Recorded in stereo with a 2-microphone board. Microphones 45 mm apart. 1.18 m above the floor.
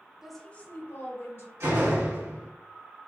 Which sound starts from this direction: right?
A door slam, at 1.6 s.